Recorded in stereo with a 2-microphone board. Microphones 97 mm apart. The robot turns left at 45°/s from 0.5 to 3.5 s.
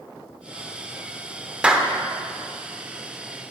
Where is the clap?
10° right (ahead or behind), 0.7 m; by 1.9 s 5° right (ahead or behind), 0.7 m.